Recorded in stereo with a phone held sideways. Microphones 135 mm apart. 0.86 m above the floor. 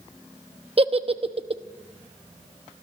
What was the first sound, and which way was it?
A giggle, 40° right (ahead or behind).